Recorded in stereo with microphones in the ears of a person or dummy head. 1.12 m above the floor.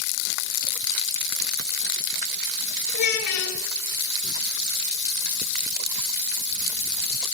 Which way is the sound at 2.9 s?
80° left.